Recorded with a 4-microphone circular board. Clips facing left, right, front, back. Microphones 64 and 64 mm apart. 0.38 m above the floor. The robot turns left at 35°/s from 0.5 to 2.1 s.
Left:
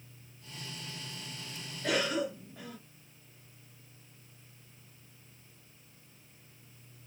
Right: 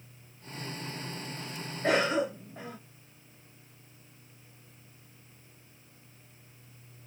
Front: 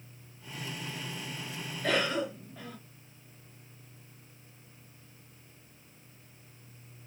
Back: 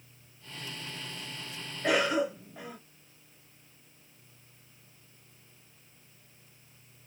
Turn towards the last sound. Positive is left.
turn(degrees=-115)